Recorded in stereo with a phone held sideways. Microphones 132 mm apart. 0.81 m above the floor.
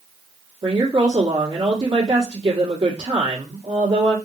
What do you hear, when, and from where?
0.6 s a woman speaking: 50° right (ahead or behind), 1.3 m